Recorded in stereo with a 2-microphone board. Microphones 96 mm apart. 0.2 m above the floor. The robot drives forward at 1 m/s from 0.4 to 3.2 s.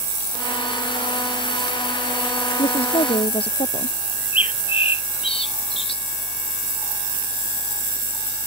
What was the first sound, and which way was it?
A woman speaking, 75° left (ahead or behind).